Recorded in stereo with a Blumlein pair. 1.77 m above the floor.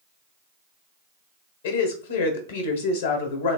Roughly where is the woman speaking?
Ahead left.